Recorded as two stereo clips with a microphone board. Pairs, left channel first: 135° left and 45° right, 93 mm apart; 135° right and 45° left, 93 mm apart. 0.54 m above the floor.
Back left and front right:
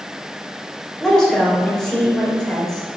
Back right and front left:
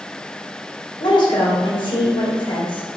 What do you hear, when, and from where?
1.0 s a woman speaking: 140° right, 2.5 m